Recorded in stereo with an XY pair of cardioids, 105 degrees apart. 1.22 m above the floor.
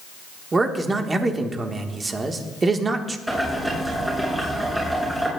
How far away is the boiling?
About 6.5 m.